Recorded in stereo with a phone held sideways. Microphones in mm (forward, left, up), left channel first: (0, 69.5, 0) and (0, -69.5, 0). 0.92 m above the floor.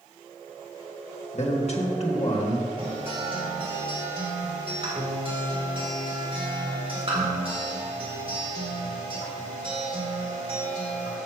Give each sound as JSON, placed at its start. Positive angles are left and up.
{"t": 1.3, "sound": "a man speaking", "side_deg": 50, "distance_m": 1.6}
{"t": 2.8, "sound": "a guitar", "side_deg": -40, "distance_m": 1.9}